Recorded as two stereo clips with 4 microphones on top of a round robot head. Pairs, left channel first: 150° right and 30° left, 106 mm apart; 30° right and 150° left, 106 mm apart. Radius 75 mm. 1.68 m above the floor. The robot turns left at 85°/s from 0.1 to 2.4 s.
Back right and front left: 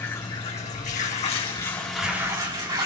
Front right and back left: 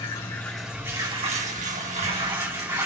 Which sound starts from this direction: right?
Running water, at 0.0 s.